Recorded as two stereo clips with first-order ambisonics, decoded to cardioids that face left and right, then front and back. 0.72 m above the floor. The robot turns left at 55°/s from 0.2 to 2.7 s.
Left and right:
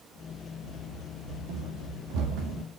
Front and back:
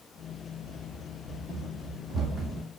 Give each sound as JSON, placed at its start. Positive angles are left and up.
{"t": 0.6, "sound": "running footsteps", "azimuth_deg": -50, "distance_m": 2.5}